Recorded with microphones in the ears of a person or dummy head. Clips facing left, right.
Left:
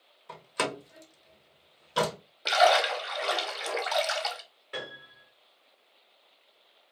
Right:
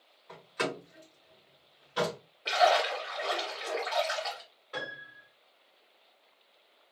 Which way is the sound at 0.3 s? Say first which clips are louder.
Left 1 dB; 50° left (ahead or behind).